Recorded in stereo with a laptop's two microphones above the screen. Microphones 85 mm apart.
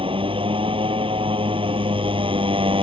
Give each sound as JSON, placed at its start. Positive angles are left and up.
{"t": 0.0, "sound": "a motorcycle", "side_deg": -85}